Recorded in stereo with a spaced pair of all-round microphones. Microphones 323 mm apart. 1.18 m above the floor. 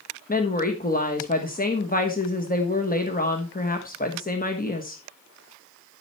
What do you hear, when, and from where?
0.3 s a woman speaking: 25° left (ahead or behind), 1.2 m